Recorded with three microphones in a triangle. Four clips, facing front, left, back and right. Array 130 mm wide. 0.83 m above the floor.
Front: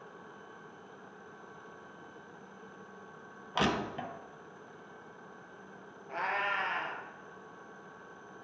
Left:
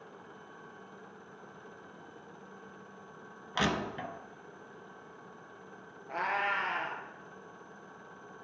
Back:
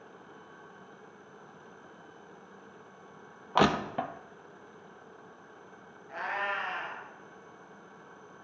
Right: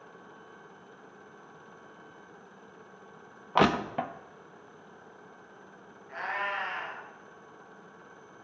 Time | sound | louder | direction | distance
3.5 | crushing | right 8 dB, back 6 dB | 125° right | 0.8 m
6.1 | a cat meowing | left 2 dB, even | 65° left | 2.5 m